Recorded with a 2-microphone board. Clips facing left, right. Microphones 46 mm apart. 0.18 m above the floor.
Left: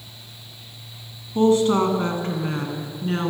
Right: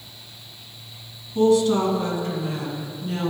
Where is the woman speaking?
35° left (ahead or behind), 1.3 m; by 3.3 s 50° left (ahead or behind), 1.9 m.